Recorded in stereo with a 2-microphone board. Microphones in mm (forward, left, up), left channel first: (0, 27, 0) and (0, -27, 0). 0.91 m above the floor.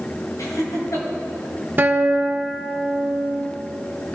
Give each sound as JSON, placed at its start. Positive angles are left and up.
{"t": 0.4, "sound": "laughter", "side_deg": 80, "distance_m": 4.5}
{"t": 1.8, "sound": "a guitar", "side_deg": -35, "distance_m": 1.1}